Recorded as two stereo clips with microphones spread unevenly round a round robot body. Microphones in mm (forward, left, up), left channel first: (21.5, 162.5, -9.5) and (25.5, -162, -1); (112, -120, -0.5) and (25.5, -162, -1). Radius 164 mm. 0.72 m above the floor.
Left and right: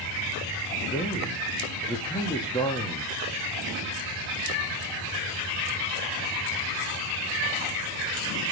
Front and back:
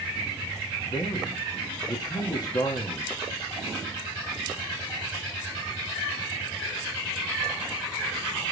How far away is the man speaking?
About 1.2 m.